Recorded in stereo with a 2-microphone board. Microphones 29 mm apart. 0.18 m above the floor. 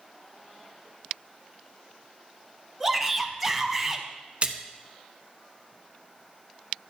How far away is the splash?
About 0.9 m.